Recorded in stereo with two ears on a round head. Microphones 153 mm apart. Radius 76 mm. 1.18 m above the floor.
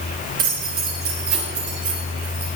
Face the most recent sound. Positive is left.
turn(degrees=-75)  # may be behind; listen again after turning